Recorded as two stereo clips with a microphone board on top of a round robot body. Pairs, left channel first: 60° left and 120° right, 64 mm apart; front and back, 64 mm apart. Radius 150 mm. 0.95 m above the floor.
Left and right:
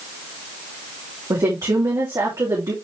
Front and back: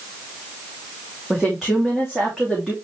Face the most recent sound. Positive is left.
turn(degrees=-95)